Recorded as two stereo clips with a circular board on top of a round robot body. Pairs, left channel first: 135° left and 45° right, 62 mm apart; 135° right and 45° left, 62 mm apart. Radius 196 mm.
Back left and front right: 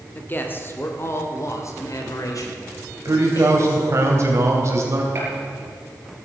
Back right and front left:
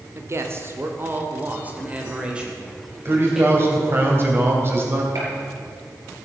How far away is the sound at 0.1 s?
About 2 m.